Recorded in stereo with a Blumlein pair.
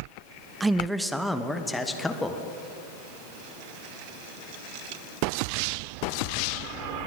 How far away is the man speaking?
About 0.7 m.